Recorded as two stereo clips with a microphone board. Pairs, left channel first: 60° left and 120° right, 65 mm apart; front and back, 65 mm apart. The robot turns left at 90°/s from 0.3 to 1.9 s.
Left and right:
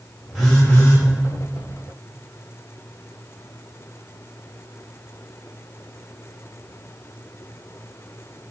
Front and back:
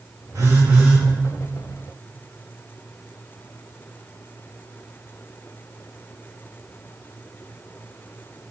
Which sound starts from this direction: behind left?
A phone buzzing, at 0.3 s.